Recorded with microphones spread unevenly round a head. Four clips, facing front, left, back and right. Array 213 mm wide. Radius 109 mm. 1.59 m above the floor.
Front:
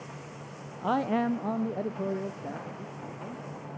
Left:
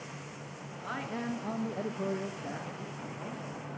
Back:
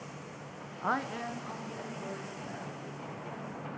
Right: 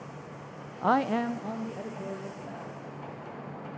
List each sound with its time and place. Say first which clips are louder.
0.8 s a man speaking: right 12 dB, front 7 dB; 75° right, 0.7 m; by 3.4 s 30° left, 3.5 m